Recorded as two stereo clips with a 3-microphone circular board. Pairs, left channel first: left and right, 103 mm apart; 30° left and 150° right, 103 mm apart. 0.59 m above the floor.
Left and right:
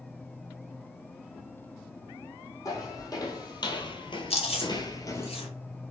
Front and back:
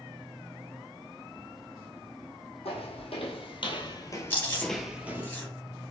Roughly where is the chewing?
Left.